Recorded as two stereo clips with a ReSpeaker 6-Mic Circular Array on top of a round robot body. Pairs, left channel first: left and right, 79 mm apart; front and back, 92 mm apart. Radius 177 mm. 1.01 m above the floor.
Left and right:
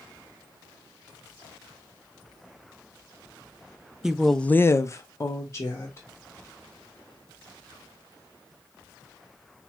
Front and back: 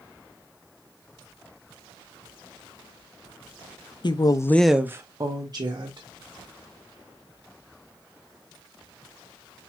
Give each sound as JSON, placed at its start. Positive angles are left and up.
{"t": 4.0, "sound": "a woman speaking", "azimuth_deg": -10, "distance_m": 0.7}